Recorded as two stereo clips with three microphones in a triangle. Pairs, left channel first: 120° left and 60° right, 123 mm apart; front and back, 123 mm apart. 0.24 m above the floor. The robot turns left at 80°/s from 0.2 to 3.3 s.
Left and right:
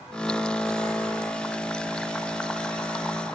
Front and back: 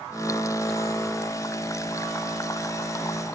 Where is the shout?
No shout in this recording.